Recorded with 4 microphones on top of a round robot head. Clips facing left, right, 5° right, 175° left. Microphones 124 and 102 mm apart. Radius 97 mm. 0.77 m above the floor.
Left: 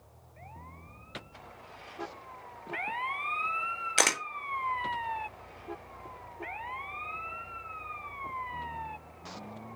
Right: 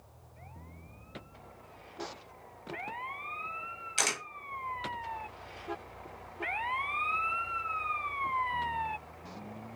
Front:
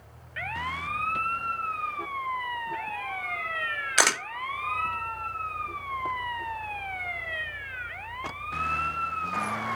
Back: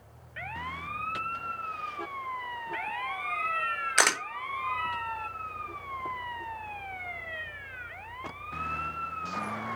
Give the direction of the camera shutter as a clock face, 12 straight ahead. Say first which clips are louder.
Left 6 dB, front 2 dB; 9 o'clock.